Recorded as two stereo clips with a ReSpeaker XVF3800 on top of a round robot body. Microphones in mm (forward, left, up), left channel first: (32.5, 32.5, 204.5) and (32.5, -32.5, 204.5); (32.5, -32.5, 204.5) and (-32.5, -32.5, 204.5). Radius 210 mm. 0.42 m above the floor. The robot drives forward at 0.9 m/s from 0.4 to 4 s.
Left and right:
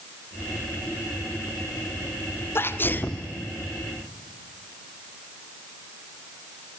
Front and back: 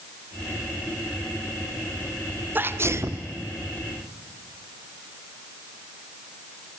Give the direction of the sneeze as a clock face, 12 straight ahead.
8 o'clock.